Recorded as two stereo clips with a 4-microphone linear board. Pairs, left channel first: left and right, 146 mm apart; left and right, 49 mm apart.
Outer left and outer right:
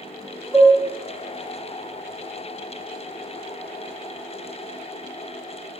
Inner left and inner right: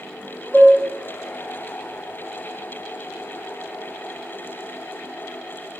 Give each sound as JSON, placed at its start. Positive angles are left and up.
{"t": 0.5, "sound": "dishes clattering", "side_deg": 20, "distance_m": 0.8}